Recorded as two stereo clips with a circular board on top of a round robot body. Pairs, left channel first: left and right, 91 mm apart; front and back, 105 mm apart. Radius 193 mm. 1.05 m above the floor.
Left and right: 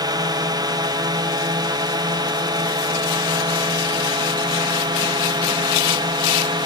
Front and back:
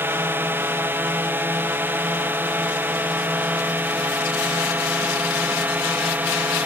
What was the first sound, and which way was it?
A drone, 115° right.